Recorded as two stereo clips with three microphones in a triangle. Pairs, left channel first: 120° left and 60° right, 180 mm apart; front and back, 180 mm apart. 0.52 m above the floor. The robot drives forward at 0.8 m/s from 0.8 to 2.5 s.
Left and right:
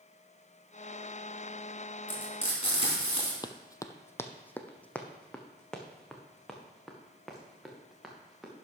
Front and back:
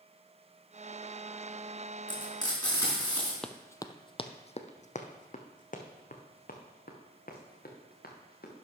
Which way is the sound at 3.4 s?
80° left.